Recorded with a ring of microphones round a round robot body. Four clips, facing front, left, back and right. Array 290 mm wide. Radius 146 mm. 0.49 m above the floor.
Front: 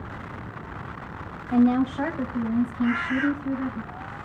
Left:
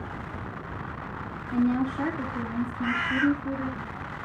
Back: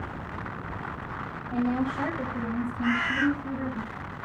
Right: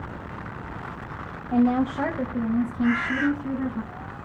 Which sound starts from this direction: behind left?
A bird, at 2.8 s.